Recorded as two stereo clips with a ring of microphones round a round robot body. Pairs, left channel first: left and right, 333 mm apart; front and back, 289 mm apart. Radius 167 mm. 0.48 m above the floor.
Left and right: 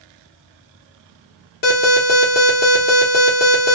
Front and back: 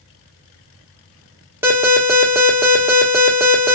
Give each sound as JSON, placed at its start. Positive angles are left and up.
{"t": 1.6, "sound": "an alarm", "azimuth_deg": 110, "distance_m": 1.1}